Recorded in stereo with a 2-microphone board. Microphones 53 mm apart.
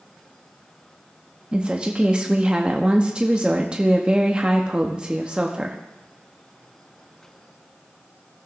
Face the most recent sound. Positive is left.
turn(degrees=-20)  # may be behind; listen again after turning